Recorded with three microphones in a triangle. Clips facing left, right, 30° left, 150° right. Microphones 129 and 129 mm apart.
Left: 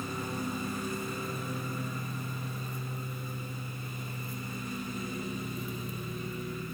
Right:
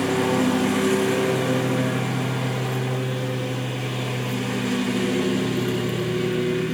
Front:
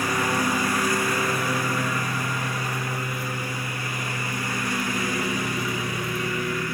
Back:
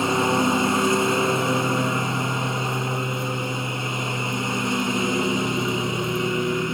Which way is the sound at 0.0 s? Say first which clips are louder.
Right 16 dB, back 4 dB; 85° right.